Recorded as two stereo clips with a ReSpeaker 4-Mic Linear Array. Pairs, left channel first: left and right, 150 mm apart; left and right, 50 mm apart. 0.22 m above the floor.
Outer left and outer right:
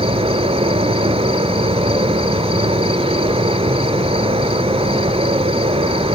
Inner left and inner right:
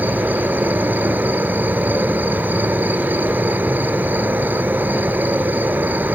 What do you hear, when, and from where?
0.0 s an insect: 40° right (ahead or behind), 0.7 m